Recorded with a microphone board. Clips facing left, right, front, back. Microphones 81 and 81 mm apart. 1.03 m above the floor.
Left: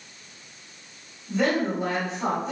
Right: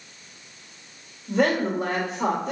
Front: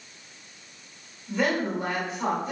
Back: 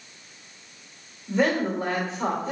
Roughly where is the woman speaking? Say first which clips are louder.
Right 2 dB, back 3 dB; behind right.